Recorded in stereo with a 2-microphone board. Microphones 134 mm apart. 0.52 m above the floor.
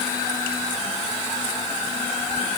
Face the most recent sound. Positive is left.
No sound to turn to.